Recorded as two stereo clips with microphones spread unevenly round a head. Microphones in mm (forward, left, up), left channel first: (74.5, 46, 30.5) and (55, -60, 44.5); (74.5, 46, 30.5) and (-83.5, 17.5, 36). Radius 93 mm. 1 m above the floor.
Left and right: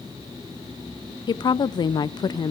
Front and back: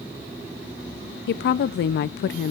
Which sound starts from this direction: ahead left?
A woman speaking, at 1.3 s.